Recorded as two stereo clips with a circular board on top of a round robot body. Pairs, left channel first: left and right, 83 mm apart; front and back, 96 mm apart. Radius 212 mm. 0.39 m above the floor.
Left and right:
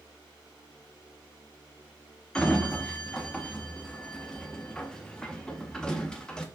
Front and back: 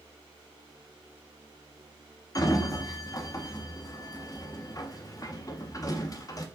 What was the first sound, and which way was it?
A sliding door, 15° left.